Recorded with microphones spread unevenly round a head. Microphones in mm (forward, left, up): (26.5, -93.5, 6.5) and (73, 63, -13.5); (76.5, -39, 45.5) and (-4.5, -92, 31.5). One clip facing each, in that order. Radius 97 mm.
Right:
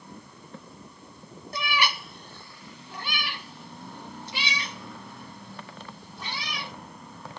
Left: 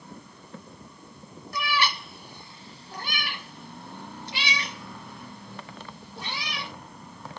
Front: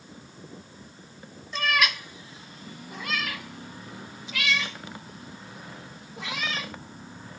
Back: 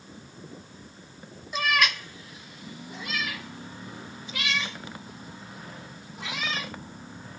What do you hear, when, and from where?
1.5 s a cat meowing: 60° right, 1.6 m; by 6.7 s 55° left, 6.5 m